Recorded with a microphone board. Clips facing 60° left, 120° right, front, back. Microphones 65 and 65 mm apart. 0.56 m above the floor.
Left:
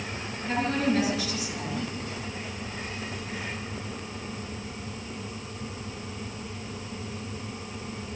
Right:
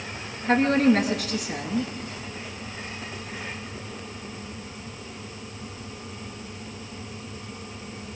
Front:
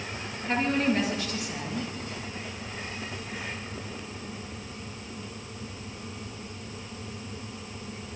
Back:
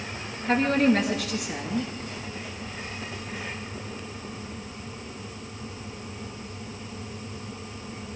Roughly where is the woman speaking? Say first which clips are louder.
Right 7 dB, back 5 dB; behind.